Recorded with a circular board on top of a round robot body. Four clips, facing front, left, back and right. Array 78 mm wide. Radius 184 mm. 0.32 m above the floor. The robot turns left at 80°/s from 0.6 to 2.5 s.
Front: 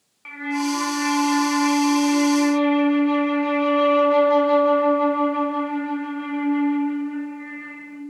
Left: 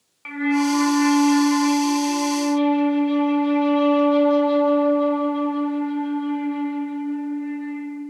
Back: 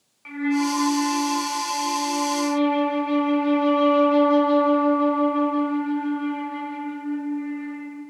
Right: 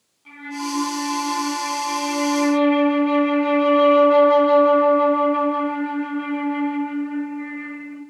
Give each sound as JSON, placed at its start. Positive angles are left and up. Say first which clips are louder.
{"t": 0.2, "sound": "a flute", "louder": "left 9 dB, back 2 dB", "azimuth_deg": 80, "distance_m": 2.0}